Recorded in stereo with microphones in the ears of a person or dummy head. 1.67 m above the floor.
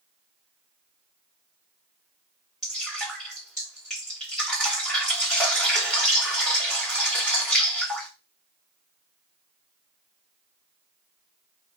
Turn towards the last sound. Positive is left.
turn(degrees=5)  # may be behind; listen again after turning